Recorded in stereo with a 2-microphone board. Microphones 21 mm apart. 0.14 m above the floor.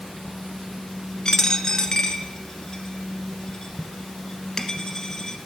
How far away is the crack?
No crack in this recording.